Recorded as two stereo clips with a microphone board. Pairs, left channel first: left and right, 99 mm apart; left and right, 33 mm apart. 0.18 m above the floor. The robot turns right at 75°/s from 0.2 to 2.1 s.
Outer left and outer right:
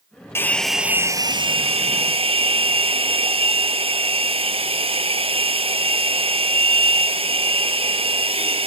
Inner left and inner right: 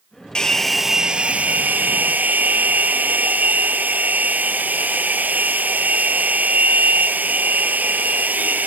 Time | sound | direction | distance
0.3 | a hair dryer | 155° left | 0.8 m